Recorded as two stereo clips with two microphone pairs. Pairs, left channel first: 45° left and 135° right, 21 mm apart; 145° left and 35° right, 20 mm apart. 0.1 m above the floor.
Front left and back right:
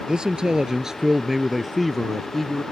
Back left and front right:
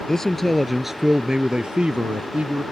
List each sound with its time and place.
0.1 s a man speaking: 160° right; by 2.6 s 35° right